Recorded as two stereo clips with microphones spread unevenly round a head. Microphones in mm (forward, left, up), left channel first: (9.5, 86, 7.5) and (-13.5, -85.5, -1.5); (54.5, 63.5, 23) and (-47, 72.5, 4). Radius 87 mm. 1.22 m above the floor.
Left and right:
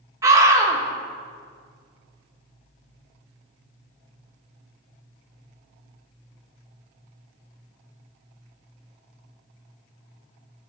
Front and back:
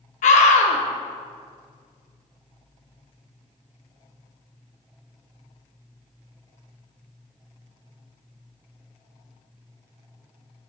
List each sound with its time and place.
0.2 s a scream: 25° right, 1.8 m